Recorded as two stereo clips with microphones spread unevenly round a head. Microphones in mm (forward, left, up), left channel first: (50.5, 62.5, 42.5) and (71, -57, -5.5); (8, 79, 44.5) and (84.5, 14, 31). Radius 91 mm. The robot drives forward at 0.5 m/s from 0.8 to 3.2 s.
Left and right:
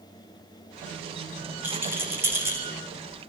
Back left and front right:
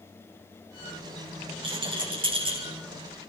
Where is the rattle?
5° right, 6 m.